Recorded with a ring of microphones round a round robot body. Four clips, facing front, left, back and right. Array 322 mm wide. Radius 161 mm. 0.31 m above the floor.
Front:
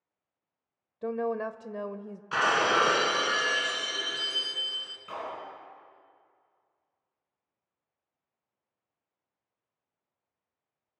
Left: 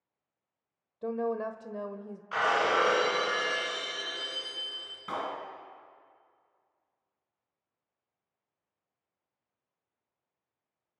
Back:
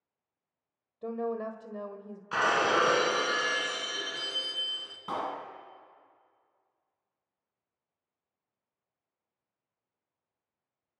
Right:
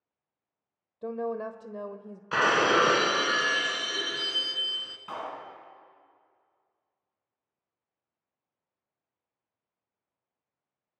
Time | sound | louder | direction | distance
1.0 | a woman speaking | left 1 dB, front 3 dB | 10° right | 1.3 m
2.3 | breaking glass | right 3 dB, front 1 dB | 85° right | 2 m
5.1 | a clap | left 2 dB, back 3 dB | 160° left | 2.5 m